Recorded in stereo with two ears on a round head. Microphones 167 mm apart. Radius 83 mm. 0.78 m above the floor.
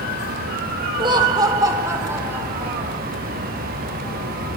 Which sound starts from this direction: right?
Laughter, at 1.0 s.